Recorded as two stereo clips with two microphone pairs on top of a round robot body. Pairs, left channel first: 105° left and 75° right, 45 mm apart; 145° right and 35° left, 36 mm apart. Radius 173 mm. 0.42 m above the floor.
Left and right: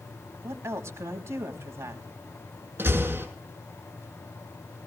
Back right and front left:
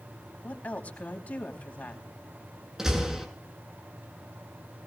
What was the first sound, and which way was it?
A woman speaking, 95° right.